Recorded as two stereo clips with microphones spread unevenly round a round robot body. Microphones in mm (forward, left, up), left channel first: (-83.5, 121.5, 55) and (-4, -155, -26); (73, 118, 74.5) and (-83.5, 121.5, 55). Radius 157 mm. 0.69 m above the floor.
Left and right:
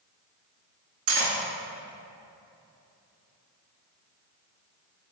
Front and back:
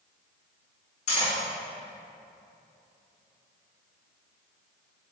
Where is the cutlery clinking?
50° right, 0.7 m.